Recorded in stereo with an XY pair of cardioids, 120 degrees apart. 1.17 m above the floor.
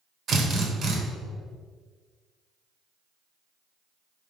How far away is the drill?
About 1.1 m.